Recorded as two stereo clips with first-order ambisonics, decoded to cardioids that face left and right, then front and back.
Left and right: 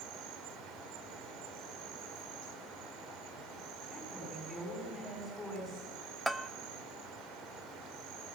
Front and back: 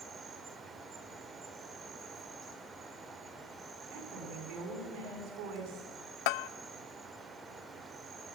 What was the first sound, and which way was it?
An insect, 110° right.